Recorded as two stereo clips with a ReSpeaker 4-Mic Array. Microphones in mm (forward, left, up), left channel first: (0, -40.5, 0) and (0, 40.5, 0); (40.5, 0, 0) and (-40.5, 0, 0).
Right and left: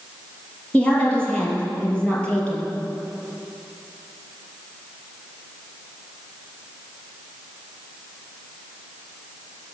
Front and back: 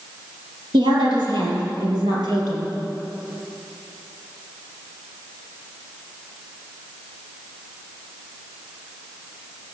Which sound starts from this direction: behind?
A woman speaking, at 0.7 s.